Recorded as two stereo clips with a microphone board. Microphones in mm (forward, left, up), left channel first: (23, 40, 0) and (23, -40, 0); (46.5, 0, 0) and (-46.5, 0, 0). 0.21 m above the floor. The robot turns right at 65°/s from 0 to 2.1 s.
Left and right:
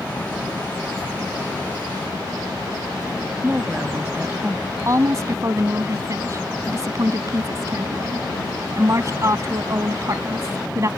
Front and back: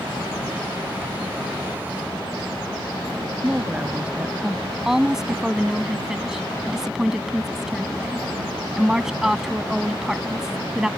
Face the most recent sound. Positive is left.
turn(degrees=-100)